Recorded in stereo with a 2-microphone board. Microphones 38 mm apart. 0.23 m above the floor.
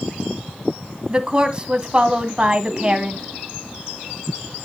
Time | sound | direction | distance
1.1 | a woman speaking | 25° right (ahead or behind) | 1.6 m